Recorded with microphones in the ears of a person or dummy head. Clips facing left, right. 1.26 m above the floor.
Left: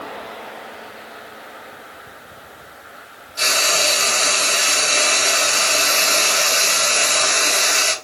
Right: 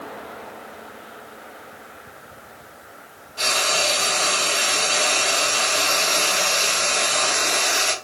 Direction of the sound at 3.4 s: 25° left (ahead or behind).